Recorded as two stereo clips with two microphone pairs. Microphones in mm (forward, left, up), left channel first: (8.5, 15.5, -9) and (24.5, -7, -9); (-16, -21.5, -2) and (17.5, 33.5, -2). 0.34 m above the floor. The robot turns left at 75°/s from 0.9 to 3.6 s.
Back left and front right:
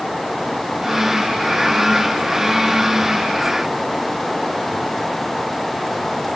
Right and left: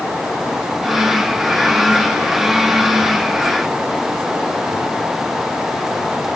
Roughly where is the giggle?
No giggle in this recording.